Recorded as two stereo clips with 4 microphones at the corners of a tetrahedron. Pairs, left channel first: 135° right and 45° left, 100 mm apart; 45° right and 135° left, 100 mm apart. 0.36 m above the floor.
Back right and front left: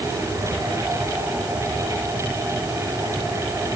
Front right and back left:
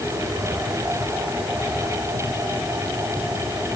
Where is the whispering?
No whispering in this recording.